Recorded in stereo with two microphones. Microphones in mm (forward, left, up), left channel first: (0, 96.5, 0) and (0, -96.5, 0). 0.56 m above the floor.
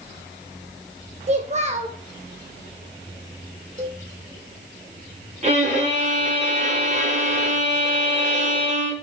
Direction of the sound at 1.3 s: 35° right (ahead or behind).